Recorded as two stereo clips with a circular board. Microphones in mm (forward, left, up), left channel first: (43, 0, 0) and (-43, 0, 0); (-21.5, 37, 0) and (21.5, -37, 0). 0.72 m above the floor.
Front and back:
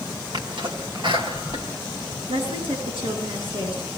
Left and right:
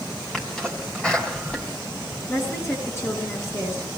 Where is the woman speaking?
Straight behind, 9.5 m.